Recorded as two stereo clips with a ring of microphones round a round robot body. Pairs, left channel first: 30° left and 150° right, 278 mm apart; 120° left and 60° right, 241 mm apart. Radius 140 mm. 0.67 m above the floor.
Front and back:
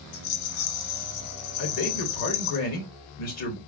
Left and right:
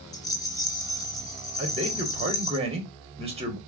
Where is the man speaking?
5° left, 1.8 m.